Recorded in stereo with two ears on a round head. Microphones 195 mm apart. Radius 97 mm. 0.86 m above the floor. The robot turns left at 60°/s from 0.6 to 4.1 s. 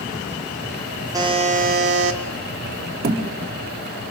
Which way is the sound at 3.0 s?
45° right (ahead or behind).